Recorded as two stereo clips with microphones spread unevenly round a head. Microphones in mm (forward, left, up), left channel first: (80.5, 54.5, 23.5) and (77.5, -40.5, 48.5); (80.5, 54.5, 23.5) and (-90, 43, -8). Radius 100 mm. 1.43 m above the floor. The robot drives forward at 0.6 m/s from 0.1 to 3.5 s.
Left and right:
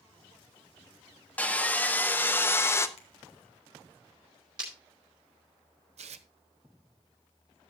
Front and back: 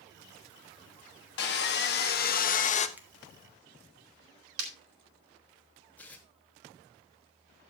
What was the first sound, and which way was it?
Sawing, 5° left.